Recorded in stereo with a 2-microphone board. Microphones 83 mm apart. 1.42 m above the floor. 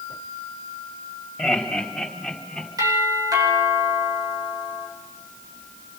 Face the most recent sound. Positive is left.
turn(degrees=-50)  # may be behind; listen again after turning